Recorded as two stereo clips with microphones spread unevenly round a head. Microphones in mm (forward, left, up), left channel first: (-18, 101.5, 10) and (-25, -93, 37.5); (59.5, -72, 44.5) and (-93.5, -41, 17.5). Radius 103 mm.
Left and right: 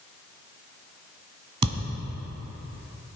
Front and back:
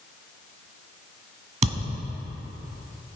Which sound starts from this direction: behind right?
A thud, at 1.6 s.